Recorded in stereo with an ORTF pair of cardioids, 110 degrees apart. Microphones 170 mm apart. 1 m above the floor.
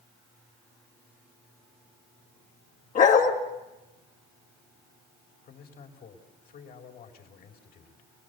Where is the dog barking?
50° left, 3 m.